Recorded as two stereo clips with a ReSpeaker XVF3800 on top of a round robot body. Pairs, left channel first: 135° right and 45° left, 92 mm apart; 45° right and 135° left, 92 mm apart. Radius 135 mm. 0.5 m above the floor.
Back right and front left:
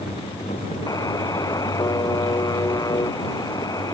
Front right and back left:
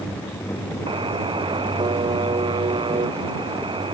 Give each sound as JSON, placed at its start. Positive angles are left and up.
{"t": 0.9, "sound": "a buzzer", "azimuth_deg": 170}